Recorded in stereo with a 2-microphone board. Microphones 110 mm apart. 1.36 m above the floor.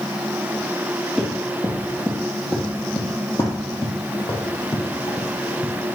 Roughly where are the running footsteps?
Centre.